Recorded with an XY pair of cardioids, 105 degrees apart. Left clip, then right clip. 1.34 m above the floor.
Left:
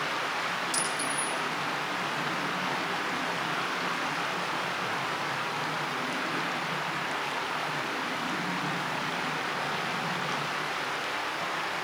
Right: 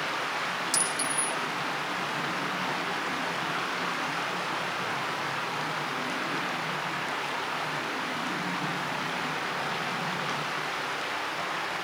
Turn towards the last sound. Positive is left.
turn(degrees=-45)